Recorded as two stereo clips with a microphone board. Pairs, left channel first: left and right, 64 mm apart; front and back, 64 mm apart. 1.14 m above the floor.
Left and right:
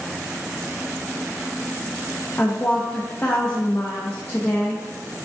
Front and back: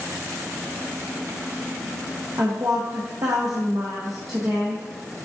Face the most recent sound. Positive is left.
turn(degrees=155)